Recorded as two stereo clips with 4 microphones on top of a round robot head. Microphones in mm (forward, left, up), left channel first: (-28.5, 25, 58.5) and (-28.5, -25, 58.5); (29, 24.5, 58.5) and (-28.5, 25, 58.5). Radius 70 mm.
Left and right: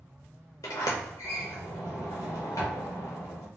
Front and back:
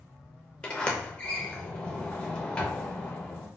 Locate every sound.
0.6 s a sliding door: 70° left, 0.6 m